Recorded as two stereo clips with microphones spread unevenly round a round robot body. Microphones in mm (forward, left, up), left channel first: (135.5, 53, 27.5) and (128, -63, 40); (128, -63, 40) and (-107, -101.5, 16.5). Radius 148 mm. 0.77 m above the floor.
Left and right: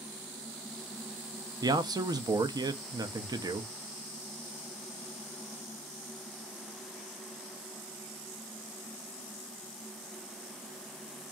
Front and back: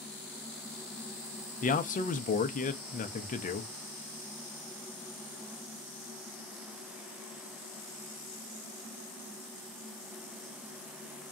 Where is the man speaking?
40° right, 0.6 m.